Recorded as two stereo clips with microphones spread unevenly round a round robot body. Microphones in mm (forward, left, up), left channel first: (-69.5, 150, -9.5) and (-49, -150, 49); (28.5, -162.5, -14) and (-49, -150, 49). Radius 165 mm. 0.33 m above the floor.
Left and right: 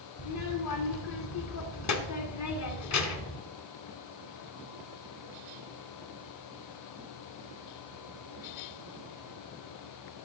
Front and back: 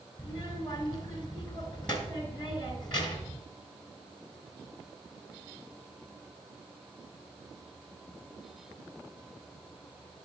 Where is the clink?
No clink in this recording.